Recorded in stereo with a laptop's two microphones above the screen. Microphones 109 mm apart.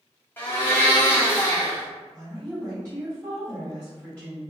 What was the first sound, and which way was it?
A blender, 15° left (ahead or behind).